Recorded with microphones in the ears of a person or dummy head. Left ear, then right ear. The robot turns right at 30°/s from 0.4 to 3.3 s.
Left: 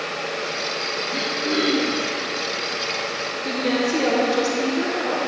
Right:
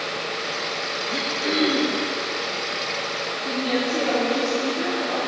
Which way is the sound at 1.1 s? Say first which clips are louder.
Right 1 dB; 50° right (ahead or behind).